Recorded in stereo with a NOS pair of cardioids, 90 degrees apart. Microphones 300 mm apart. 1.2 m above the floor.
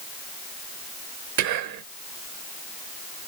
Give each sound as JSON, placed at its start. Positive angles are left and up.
{"t": 1.4, "sound": "whispering", "azimuth_deg": -65, "distance_m": 0.7}